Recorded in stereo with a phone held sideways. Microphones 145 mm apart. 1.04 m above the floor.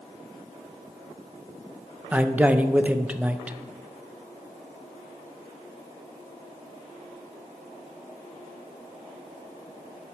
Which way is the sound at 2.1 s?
10° right (ahead or behind).